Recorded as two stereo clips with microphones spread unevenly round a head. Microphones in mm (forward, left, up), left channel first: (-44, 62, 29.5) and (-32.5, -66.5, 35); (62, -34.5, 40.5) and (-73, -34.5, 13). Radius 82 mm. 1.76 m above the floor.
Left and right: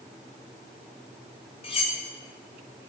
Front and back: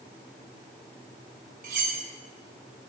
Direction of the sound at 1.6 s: 135° left.